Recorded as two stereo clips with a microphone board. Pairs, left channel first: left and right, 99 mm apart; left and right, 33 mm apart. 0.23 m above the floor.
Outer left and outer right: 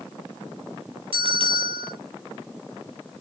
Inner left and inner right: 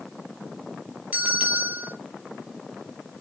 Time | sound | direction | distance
1.1 | a bell | 65° right (ahead or behind) | 4.5 m